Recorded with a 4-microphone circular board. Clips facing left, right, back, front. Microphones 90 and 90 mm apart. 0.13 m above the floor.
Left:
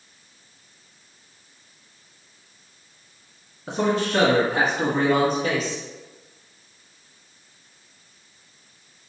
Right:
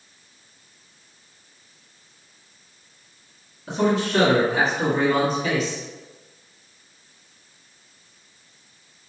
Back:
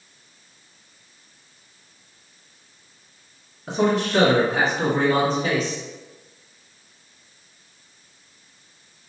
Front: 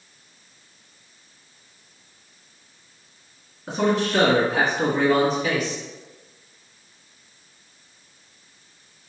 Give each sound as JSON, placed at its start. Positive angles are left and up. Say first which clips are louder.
{"t": 3.7, "sound": "a man speaking", "louder": "right 1 dB, back 1 dB", "azimuth_deg": 80, "distance_m": 1.4}